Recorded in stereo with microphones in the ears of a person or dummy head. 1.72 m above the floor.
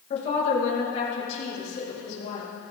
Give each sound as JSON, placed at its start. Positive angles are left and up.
{"t": 0.1, "sound": "a woman speaking", "side_deg": 35, "distance_m": 2.5}